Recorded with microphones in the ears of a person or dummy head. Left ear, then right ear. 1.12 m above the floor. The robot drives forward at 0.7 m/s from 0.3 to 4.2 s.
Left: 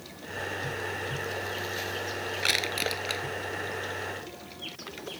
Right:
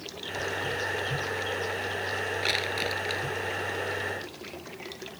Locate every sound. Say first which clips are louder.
2.4 s crushing: left 3 dB; 10° left (ahead or behind)